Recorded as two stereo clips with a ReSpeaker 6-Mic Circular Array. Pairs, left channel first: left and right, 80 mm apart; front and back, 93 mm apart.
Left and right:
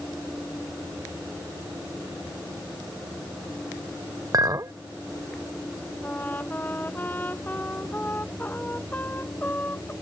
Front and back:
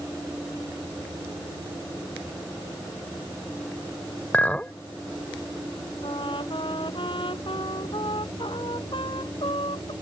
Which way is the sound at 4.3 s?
70° right.